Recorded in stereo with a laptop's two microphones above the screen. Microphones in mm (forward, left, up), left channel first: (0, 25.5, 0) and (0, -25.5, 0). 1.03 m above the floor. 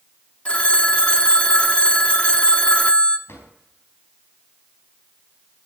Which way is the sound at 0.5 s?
25° left (ahead or behind).